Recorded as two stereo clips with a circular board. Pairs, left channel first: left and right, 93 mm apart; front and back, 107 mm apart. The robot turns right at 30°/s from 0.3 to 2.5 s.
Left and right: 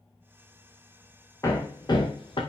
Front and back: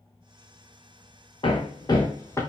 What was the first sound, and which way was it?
Hammering, 35° left.